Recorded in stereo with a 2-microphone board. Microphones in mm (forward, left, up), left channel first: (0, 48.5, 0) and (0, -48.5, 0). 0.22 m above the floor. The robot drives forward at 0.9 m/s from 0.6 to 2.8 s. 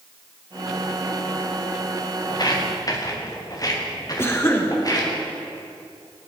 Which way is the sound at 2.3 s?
45° left (ahead or behind).